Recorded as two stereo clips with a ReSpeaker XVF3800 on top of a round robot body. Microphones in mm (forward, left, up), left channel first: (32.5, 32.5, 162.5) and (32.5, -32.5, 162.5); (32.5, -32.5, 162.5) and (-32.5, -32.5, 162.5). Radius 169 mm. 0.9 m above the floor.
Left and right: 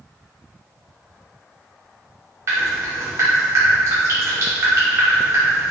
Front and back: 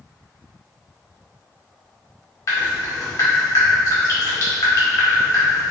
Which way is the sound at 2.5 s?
40° right.